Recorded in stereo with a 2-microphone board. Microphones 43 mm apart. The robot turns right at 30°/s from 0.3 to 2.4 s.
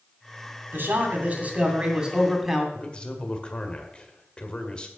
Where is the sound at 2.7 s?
25° left (ahead or behind), 1.6 m.